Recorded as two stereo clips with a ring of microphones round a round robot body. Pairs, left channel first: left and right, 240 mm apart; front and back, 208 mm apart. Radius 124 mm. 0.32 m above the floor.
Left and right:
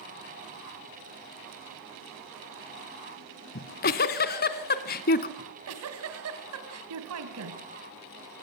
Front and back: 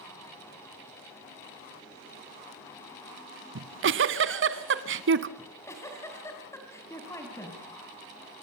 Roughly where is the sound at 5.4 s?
Right.